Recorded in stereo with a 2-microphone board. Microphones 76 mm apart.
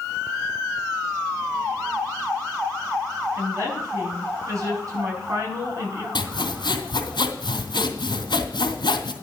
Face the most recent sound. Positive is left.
turn(degrees=85)